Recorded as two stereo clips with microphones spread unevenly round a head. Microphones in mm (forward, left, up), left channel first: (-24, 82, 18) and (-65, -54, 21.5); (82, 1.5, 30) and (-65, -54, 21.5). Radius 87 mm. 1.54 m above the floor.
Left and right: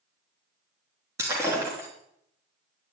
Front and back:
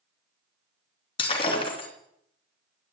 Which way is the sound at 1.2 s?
35° right.